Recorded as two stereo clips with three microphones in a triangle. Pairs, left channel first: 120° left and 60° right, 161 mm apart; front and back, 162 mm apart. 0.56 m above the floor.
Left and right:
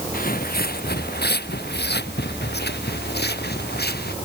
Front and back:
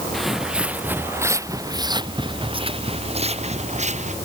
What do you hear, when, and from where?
0.1 s footsteps: 90° left; by 4.2 s 135° left